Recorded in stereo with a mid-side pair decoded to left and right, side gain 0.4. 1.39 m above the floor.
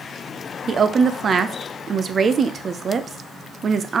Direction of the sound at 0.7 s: 45° right.